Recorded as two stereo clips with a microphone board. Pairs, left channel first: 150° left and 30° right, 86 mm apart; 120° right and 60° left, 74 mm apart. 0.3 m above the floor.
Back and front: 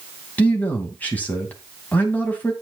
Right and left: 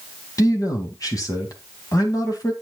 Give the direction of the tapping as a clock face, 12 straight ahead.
No tapping in this recording.